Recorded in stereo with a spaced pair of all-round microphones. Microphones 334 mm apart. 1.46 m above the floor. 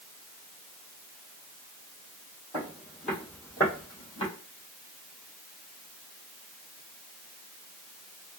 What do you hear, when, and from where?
2.5 s footsteps: 5° right (ahead or behind), 2.5 m; by 4.3 s 20° left (ahead or behind), 2.5 m